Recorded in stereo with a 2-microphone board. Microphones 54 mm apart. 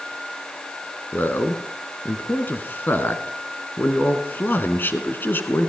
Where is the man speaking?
40° left (ahead or behind), 1.6 m.